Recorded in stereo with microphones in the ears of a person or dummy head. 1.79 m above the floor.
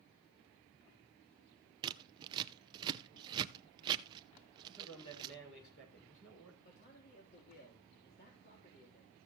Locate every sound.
1.8 s scissors: 30° right (ahead or behind), 0.7 m
4.6 s a man speaking: 75° left (ahead or behind), 6.5 m
6.7 s a man speaking: 50° left (ahead or behind), 3 m